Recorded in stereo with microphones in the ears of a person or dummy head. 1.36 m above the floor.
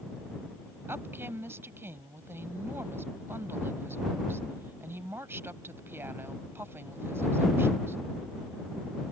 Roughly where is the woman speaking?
Centre.